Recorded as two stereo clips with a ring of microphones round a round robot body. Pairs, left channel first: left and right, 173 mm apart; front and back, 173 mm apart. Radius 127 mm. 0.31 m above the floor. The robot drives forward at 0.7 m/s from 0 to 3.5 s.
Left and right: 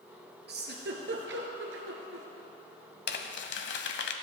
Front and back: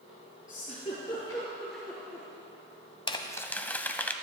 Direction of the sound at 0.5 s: 60° right.